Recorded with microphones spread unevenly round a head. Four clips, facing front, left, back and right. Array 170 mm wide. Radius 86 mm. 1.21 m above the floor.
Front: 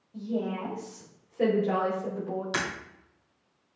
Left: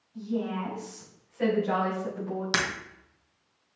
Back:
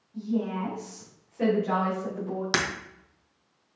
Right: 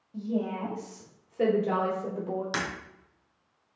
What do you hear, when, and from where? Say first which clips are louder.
0.1 s a woman speaking: even, back 2 dB; 70° right, 2 m; by 2.4 s 90° right, 3.5 m
2.5 s breaking glass: left 7 dB, back 5 dB; 165° left, 1.9 m